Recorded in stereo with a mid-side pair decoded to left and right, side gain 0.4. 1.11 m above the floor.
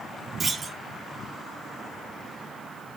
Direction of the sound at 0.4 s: 45° right.